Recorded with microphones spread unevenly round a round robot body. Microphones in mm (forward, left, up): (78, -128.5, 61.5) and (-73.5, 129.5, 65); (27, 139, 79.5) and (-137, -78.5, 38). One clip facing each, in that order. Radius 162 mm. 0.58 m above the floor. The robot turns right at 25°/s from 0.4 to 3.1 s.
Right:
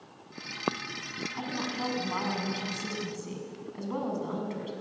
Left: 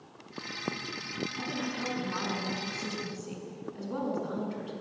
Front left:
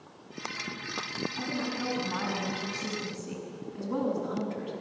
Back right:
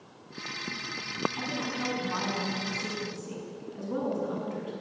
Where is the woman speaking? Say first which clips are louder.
Right 3 dB, front left 1 dB; 80° right, 6 m; by 4.7 s 35° right, 6 m.